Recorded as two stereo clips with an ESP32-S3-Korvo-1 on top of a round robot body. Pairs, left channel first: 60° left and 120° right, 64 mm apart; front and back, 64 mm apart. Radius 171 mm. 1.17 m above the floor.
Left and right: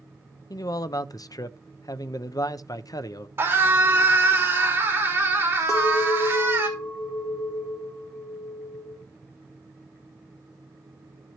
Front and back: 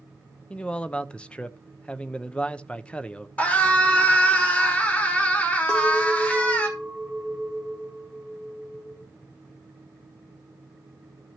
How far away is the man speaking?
About 0.6 m.